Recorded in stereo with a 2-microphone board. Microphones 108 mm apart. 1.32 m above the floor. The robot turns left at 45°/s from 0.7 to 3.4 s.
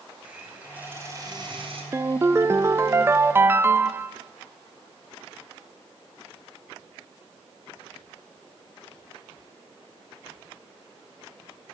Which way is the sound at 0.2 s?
15° right.